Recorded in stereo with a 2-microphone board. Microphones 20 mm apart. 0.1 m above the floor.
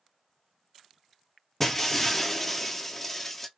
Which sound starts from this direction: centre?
Breaking glass, at 1.6 s.